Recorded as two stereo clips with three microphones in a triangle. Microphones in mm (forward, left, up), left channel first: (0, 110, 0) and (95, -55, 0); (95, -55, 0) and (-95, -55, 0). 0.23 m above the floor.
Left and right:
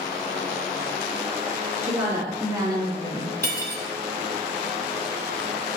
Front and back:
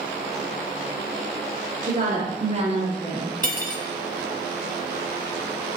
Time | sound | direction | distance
1.8 | a woman speaking | 135° right | 3.5 m
3.4 | cutlery clinking | 40° right | 1.1 m